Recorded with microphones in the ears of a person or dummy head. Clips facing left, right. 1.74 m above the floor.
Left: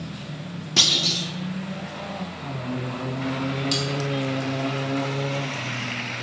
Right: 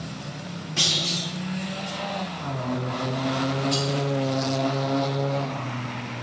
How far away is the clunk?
About 0.9 m.